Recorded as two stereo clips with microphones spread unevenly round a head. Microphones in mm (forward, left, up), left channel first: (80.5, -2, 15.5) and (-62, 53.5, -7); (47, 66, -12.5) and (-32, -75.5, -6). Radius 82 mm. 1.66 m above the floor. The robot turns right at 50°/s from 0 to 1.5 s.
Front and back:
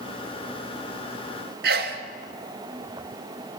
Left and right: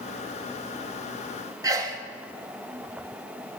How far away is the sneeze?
About 0.9 m.